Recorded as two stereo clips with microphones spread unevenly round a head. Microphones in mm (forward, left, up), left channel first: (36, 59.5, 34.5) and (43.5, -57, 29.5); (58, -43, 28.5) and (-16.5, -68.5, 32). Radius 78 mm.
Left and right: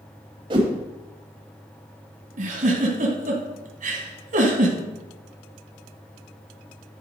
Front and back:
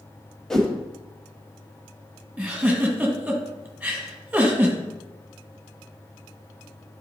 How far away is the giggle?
About 1.7 m.